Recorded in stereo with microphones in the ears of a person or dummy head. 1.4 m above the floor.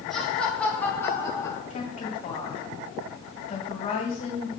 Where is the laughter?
Centre (ahead or behind), 2.5 m; by 1.6 s 20° left (ahead or behind), 1.9 m.